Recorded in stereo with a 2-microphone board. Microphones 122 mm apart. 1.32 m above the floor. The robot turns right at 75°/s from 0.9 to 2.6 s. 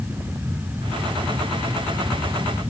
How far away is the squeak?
I don't hear a squeak.